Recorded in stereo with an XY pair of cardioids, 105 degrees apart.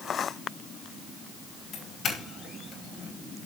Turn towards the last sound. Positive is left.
turn(degrees=60)